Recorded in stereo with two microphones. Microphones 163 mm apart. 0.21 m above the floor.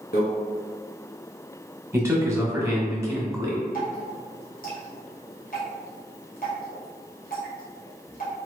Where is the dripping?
65° left (ahead or behind), 1.8 m.